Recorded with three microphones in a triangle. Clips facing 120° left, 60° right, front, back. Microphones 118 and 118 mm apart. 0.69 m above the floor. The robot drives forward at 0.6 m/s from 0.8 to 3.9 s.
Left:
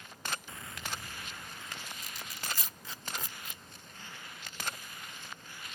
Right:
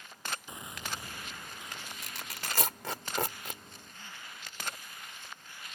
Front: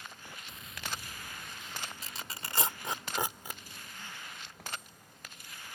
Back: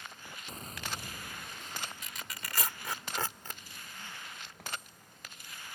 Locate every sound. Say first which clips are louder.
0.5 s a gunshot: right 1 dB, back 1 dB; 130° right; by 1.9 s 135° right
2.0 s tearing paper: right 2 dB, front 1 dB; 55° right; by 3.6 s 80° right